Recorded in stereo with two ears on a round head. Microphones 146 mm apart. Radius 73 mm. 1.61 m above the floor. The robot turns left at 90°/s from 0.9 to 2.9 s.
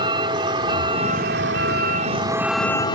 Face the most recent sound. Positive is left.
turn(degrees=150)